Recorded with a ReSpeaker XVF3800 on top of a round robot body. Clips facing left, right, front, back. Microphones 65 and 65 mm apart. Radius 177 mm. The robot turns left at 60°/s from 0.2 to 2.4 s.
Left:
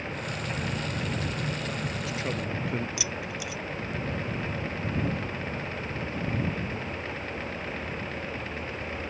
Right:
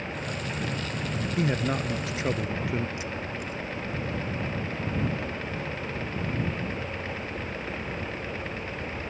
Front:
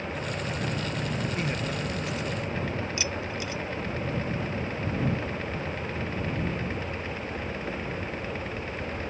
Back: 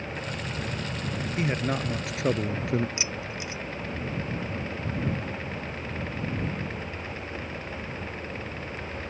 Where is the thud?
No thud in this recording.